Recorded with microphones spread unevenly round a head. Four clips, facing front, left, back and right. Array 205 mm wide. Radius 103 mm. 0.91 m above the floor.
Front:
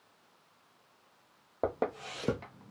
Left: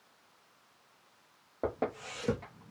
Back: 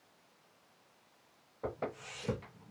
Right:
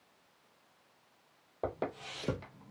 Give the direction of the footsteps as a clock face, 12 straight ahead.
12 o'clock.